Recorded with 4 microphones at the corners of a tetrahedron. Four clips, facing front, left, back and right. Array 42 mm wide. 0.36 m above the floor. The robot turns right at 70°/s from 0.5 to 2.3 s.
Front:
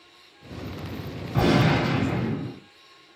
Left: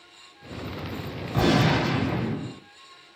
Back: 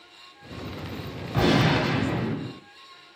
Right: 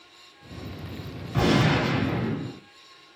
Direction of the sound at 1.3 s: 170° left.